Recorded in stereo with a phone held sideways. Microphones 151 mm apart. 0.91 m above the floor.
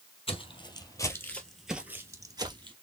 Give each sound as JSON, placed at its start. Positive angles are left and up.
{"t": 0.3, "sound": "footsteps", "side_deg": 40, "distance_m": 1.1}